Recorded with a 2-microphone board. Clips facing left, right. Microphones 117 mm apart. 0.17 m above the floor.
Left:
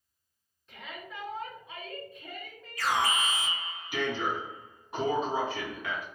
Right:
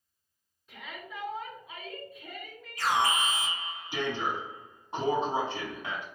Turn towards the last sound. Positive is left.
turn(degrees=-25)  # may be behind; listen again after turning